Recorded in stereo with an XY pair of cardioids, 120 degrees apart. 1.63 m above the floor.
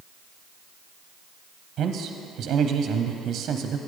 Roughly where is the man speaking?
Ahead right.